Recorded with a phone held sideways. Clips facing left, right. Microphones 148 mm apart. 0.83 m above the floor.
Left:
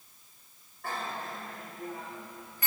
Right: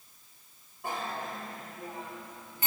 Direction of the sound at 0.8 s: 20° right (ahead or behind).